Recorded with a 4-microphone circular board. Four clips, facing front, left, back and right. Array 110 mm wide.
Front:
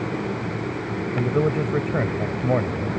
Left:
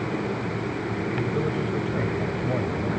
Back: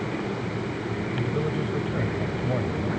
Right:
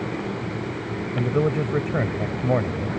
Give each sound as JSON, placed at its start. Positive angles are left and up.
{"t": 1.1, "sound": "a man speaking", "azimuth_deg": -45}